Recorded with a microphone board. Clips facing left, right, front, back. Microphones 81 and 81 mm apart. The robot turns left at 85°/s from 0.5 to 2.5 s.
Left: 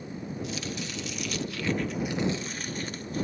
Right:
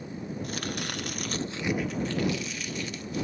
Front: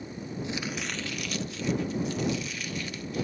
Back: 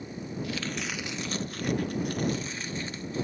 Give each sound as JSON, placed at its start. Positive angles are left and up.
{"t": 0.4, "sound": "chopping", "azimuth_deg": -60}